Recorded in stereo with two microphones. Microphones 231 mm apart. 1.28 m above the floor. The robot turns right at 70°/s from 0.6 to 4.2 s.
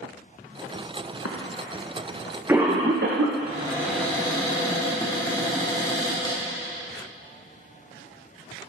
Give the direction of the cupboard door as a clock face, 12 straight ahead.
1 o'clock.